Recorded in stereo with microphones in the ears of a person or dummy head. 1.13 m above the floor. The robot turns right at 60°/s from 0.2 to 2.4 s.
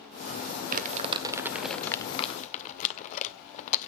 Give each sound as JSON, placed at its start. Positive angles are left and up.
{"t": 0.7, "sound": "crumpling", "side_deg": -55, "distance_m": 1.5}